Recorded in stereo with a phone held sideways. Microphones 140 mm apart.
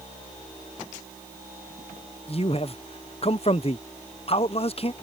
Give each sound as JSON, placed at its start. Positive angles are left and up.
{"t": 2.3, "sound": "a man speaking", "side_deg": 45}